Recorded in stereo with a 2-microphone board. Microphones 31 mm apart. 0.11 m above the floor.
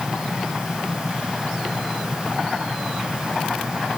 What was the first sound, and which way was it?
Only background noise.